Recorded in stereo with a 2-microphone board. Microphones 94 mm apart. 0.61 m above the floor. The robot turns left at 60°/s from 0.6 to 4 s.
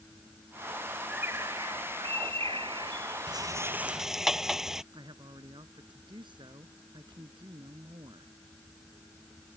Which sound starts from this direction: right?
A woman speaking, at 4.9 s.